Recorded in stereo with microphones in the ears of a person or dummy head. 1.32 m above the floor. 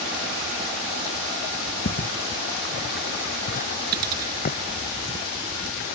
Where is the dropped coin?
50° right (ahead or behind).